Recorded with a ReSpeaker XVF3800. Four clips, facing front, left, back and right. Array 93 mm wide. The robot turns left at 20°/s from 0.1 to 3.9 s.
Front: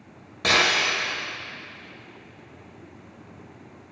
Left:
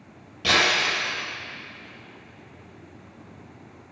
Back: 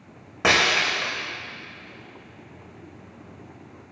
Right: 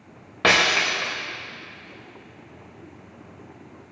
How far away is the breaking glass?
About 4.5 m.